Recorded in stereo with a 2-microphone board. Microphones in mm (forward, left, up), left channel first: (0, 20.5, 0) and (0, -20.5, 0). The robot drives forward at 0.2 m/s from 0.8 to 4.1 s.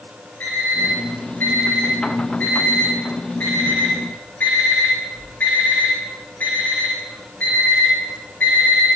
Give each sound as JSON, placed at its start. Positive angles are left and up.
{"t": 0.4, "sound": "an alarm clock", "side_deg": 55, "distance_m": 3.0}